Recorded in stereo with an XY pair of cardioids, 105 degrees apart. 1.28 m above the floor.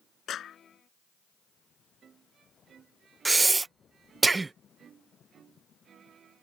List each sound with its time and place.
0.3 s a clap: 60° left
3.2 s breathing: 25° right